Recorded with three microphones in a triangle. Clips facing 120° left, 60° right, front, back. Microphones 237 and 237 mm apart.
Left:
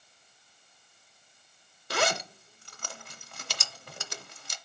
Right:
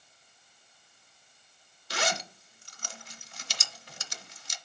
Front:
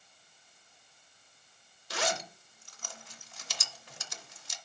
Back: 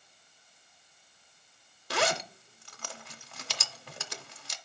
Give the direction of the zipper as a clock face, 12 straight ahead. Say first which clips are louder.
Left 4 dB, back 4 dB; 7 o'clock.